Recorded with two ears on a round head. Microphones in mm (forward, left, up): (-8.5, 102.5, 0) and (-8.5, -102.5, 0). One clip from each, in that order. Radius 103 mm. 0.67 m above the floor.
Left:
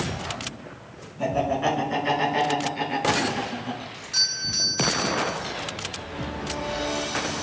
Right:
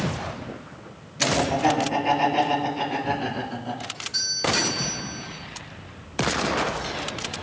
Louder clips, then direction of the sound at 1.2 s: Right 2 dB; 35° left (ahead or behind).